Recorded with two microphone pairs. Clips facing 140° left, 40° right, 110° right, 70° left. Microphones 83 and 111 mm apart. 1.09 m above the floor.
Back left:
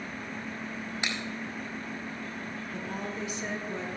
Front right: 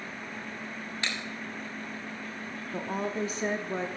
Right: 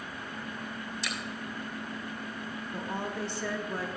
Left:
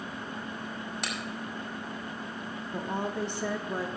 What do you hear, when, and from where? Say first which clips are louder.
1.0 s a finger snap: even, left 1 dB; 70° left, 4.5 m
2.7 s a woman speaking: front right 6 dB, left 4 dB; 5° left, 0.9 m